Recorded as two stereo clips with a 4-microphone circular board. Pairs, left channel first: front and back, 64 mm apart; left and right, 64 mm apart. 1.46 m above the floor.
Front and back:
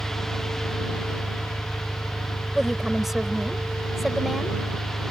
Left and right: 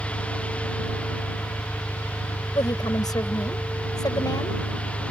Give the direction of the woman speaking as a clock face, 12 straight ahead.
9 o'clock.